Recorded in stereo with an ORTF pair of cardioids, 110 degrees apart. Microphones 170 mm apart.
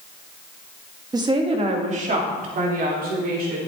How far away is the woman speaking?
About 1.8 m.